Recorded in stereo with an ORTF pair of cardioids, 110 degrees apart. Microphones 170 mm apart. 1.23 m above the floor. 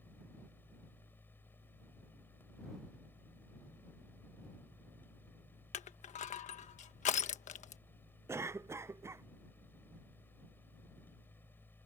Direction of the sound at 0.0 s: 10° left.